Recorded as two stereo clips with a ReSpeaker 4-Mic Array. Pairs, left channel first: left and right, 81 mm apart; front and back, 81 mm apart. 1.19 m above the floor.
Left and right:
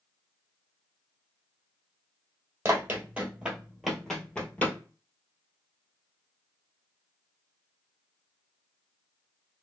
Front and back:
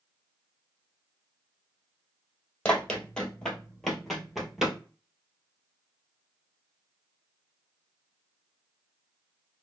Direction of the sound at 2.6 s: 60° right.